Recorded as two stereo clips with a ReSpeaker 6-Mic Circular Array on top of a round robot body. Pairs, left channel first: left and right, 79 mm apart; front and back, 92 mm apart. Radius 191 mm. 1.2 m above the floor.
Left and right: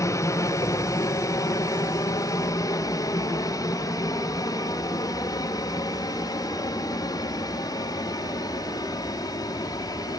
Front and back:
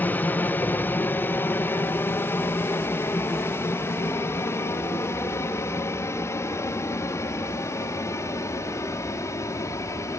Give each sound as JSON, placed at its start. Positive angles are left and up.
{"t": 0.0, "sound": "an aircraft", "azimuth_deg": 65}